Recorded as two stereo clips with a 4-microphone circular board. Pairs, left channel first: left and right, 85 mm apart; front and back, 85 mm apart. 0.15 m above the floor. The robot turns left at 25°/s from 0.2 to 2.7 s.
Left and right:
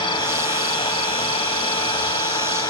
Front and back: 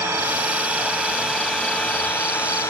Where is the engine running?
120° left, 8 m; by 2.7 s 60° left, 8 m.